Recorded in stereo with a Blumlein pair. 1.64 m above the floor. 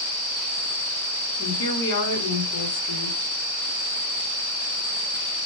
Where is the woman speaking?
60° left, 1.1 m.